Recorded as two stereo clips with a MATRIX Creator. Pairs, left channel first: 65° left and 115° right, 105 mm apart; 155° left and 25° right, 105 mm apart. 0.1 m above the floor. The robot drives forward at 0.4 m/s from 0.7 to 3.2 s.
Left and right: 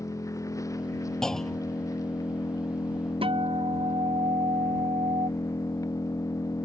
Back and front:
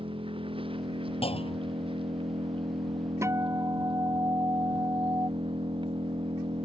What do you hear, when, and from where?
0.0 s an engine running: 10° left
1.2 s a clunk: 150° left; by 1.9 s 155° left
3.2 s a guitar: 85° right